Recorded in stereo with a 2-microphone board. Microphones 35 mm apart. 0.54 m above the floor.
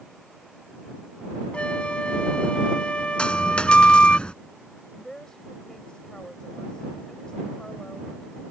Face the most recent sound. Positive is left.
turn(degrees=25)  # may be behind; listen again after turning